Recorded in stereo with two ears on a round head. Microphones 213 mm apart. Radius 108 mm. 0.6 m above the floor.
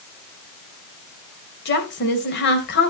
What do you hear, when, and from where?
1.6 s a woman speaking: 50° left (ahead or behind), 2.5 m